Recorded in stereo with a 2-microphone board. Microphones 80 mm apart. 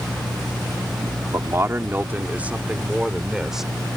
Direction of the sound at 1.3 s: 40° right (ahead or behind).